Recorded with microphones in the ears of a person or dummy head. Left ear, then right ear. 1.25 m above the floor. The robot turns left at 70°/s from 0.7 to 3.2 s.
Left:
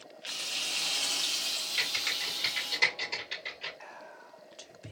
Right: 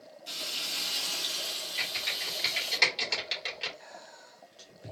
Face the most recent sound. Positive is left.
turn(degrees=35)  # may be behind; listen again after turning